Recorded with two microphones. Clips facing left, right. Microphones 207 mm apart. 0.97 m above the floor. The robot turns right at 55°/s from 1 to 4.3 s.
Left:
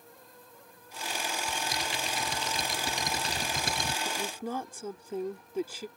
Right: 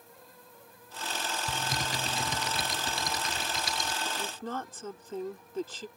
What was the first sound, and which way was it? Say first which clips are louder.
Typing on a keyboard: right 1 dB; 65° right.